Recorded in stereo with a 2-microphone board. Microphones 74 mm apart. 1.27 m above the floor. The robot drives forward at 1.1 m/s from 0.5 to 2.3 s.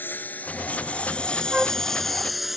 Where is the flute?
10° right (ahead or behind).